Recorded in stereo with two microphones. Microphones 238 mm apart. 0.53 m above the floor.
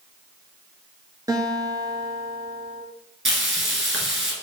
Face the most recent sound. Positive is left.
turn(degrees=-55)  # may be behind; listen again after turning